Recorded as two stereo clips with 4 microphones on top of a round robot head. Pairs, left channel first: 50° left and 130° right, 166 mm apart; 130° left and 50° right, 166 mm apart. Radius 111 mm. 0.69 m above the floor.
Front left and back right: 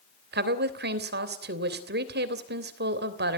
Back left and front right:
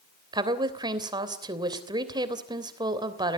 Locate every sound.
0.3 s a woman speaking: 115° right, 3 m